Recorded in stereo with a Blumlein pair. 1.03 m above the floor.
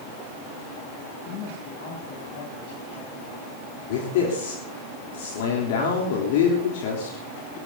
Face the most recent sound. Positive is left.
turn(degrees=50)